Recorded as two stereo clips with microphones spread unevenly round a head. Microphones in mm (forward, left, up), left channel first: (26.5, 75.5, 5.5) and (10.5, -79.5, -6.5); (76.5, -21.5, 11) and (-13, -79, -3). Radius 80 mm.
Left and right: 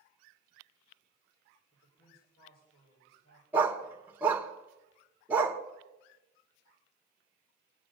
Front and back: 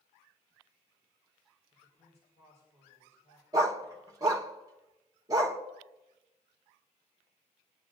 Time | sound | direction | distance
1.7 | a man speaking | 85° left | 4.5 m
3.5 | a dog barking | 170° right | 1.1 m